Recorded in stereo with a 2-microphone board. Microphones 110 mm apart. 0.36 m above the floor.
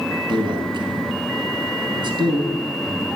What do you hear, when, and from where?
0.3 s a man speaking: 45° right (ahead or behind), 3.5 m